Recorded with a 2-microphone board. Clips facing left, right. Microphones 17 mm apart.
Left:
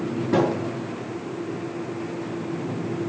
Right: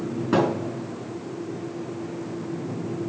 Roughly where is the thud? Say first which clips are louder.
Even; right.